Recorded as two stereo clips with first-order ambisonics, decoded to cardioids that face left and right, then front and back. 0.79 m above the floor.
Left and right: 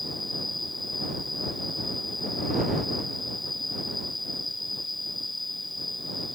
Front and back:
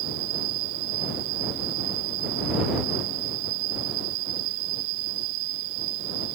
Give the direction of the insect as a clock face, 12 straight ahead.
6 o'clock.